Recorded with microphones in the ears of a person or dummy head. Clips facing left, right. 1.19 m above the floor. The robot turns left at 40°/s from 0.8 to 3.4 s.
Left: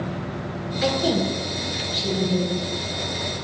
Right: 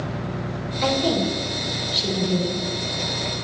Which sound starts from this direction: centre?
A woman speaking, at 0.8 s.